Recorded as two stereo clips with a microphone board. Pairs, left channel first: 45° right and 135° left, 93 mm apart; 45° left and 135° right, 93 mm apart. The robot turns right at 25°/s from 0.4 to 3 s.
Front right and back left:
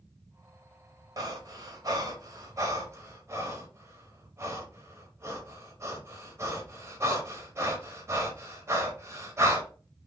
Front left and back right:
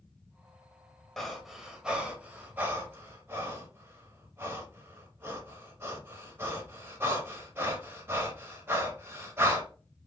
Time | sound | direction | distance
1.2 | breathing | 130° left | 0.7 m